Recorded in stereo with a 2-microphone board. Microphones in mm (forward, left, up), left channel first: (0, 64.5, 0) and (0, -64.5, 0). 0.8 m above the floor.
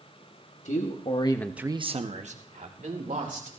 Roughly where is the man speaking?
Left.